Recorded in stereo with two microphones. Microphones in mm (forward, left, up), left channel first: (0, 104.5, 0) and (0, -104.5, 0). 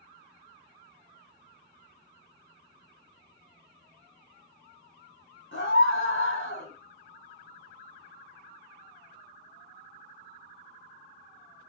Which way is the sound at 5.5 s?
70° left (ahead or behind).